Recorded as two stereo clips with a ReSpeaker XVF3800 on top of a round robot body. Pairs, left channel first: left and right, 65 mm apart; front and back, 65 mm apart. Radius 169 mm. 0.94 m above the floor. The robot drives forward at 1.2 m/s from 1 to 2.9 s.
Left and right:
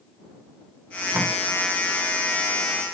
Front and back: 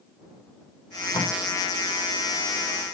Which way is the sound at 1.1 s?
20° right.